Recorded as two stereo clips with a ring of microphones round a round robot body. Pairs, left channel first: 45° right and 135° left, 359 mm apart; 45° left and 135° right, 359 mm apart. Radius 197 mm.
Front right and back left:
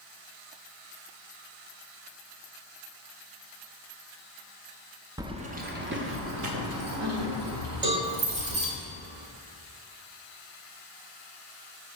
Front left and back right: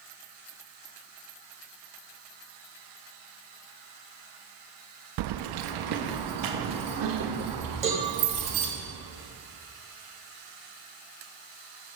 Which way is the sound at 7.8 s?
150° left.